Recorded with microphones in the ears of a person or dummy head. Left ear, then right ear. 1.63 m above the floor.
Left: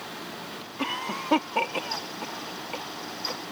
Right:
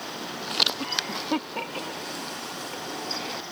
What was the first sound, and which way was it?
A cough, 25° left (ahead or behind).